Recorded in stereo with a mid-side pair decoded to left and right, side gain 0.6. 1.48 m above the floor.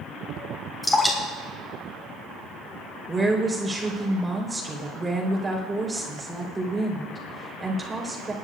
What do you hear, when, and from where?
0.8 s dripping: 10° left, 4 m
3.1 s a woman speaking: 15° right, 4 m